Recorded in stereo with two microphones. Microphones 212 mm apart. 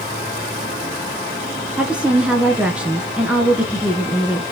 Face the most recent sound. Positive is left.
turn(degrees=-5)  # may be behind; listen again after turning